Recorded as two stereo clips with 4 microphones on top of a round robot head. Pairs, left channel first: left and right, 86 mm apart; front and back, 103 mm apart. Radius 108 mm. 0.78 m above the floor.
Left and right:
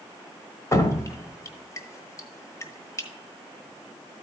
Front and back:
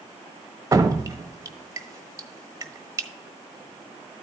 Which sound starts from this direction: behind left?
Dripping, at 0.7 s.